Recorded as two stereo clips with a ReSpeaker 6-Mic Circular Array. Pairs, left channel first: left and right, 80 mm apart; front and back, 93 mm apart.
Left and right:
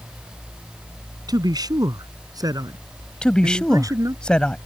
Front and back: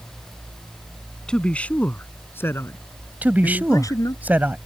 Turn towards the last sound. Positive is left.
turn(degrees=150)